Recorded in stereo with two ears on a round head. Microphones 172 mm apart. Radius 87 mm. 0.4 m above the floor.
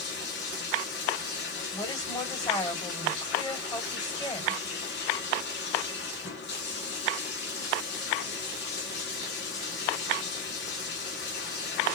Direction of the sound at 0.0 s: 65° left (ahead or behind).